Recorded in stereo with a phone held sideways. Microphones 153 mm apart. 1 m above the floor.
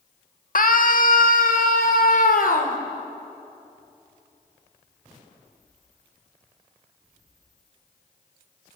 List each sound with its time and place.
0.6 s a scream: 65° left (ahead or behind), 1.9 m